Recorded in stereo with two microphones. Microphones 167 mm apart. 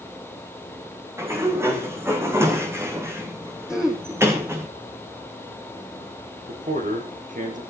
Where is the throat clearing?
5° right (ahead or behind), 4.5 m.